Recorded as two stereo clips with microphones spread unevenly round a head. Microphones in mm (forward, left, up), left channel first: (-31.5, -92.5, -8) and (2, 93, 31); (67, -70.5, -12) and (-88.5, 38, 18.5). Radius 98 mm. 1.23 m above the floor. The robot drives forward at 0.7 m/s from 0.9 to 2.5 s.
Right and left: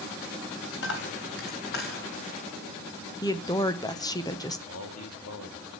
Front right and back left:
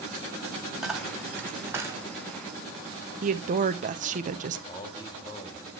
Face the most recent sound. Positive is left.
turn(degrees=-105)